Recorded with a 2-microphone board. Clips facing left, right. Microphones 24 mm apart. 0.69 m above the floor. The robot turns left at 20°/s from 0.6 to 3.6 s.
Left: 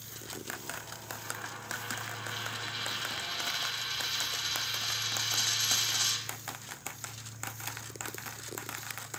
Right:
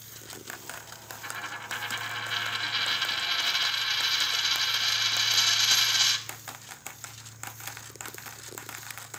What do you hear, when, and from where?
1.2 s a dropped coin: 65° right, 0.7 m; by 6.2 s 115° right, 0.7 m